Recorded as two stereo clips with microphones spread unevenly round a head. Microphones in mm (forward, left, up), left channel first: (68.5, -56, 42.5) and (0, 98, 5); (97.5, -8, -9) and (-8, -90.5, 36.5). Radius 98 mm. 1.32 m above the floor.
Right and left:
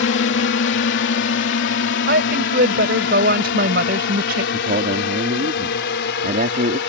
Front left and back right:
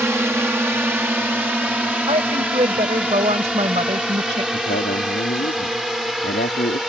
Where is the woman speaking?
155° left.